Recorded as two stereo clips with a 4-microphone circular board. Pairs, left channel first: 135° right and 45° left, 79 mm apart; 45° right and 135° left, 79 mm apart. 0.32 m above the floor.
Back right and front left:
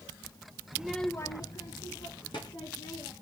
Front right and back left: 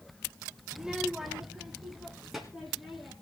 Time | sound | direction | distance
0.7 | a child speaking | 60° left | 0.6 m